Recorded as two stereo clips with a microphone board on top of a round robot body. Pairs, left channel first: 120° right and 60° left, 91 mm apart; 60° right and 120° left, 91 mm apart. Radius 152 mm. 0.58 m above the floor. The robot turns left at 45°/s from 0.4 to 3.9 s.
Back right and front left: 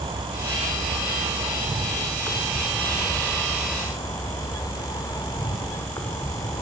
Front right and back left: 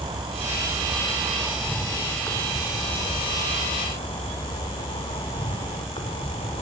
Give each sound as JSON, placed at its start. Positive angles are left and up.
{"t": 0.0, "sound": "an insect", "azimuth_deg": 85, "distance_m": 2.5}